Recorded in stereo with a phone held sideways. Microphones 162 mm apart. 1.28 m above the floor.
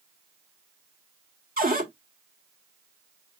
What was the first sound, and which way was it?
A cupboard door, 60° right (ahead or behind).